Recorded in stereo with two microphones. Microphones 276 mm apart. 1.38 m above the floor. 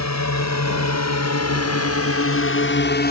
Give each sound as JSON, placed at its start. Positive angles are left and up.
{"t": 0.0, "sound": "a drone", "side_deg": 80}